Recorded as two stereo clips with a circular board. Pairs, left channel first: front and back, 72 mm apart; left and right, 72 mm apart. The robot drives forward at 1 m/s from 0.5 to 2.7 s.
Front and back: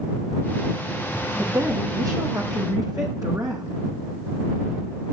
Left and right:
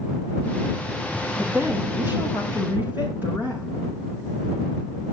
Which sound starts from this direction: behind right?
A woman speaking, at 1.4 s.